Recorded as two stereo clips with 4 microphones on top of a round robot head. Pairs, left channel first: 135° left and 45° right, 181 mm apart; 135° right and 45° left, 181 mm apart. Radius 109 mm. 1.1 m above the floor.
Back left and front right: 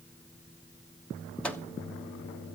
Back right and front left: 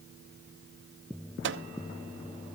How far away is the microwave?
About 0.9 m.